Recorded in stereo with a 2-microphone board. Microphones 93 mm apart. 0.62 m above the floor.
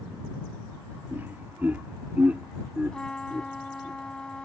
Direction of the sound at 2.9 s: 10° left (ahead or behind).